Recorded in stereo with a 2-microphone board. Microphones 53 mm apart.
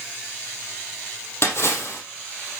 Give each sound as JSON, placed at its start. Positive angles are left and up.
{"t": 1.4, "sound": "a splash", "side_deg": 50, "distance_m": 4.5}